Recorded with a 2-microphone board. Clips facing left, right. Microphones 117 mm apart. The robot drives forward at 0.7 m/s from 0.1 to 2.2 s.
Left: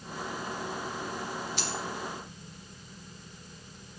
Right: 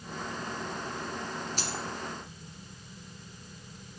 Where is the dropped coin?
40° right (ahead or behind), 1.8 m; by 1.8 s 45° right (ahead or behind), 1.7 m.